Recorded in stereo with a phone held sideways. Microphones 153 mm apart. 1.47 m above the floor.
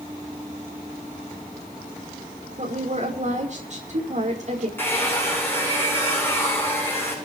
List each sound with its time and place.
2.6 s a woman speaking: 50° right (ahead or behind), 5.5 m
4.8 s a hair dryer: 15° left (ahead or behind), 9.5 m